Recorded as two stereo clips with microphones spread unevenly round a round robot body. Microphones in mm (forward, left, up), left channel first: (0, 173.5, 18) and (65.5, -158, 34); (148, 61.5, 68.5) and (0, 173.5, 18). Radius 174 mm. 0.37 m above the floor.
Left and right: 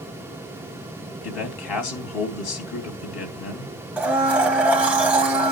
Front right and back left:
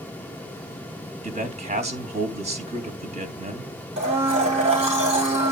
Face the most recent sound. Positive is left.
turn(degrees=-165)